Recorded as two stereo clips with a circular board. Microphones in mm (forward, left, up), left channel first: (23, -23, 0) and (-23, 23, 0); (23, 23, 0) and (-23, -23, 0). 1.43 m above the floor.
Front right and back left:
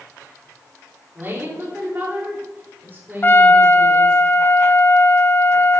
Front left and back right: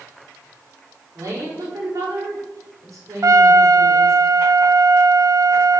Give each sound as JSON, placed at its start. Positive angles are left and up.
{"t": 1.1, "sound": "a woman speaking", "azimuth_deg": -165, "distance_m": 4.5}
{"t": 3.2, "sound": "a trumpet", "azimuth_deg": -105, "distance_m": 0.6}